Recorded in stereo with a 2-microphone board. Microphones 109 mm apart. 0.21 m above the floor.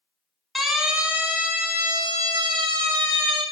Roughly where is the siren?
Centre.